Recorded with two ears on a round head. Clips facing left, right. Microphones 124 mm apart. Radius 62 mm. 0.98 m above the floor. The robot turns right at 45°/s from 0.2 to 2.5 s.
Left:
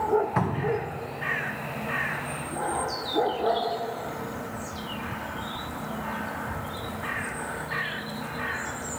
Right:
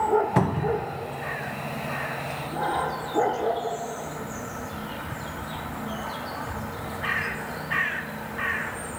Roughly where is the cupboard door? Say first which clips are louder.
Right 2 dB; right.